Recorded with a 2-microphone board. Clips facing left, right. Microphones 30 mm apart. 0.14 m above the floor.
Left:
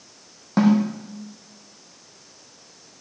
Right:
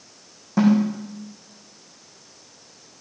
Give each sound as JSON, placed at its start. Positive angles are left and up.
{"t": 0.6, "sound": "a snare drum", "side_deg": 50, "distance_m": 5.0}